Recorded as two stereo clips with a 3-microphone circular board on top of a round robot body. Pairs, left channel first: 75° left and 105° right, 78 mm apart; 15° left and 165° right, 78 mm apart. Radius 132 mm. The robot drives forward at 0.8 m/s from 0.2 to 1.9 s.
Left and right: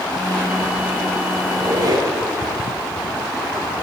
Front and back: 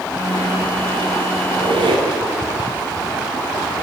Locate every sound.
1.4 s a squeak: 150° right, 2.5 m; by 2.1 s 155° right, 3 m